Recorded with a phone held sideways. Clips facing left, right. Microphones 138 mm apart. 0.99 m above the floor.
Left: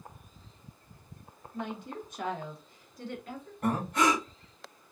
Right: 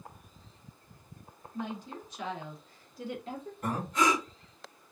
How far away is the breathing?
About 1.3 m.